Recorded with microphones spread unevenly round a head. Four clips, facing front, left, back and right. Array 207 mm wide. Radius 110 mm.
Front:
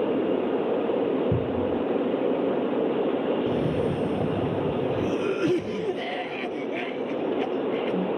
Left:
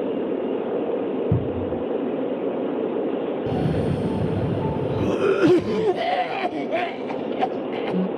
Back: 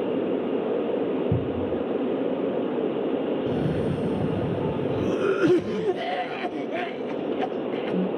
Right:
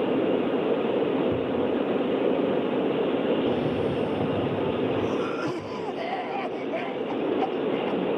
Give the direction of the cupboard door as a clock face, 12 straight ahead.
10 o'clock.